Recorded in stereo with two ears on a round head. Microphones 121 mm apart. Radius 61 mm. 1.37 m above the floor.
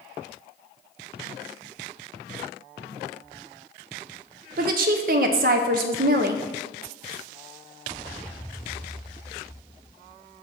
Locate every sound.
4.6 s a woman speaking: 70° right (ahead or behind), 0.6 m